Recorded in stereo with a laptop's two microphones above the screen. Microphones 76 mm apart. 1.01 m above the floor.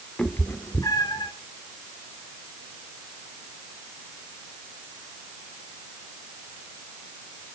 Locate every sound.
0.2 s a cat meowing: 15° left (ahead or behind), 1.5 m; by 1.3 s 70° left (ahead or behind), 1.7 m